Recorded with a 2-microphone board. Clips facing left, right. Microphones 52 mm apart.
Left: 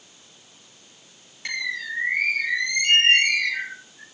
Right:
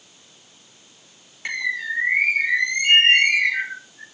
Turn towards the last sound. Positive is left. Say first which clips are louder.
# right 4 dB
turn(degrees=-20)  # may be behind; listen again after turning